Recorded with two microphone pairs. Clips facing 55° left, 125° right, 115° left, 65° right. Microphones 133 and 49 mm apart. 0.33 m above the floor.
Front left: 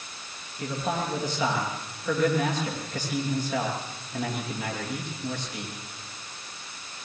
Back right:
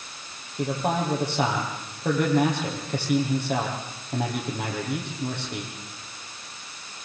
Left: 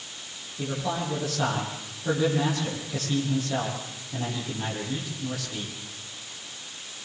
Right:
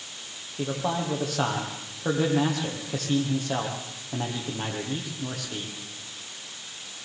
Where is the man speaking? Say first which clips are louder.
Back right 4 dB, right 2 dB; 95° right, 10 m.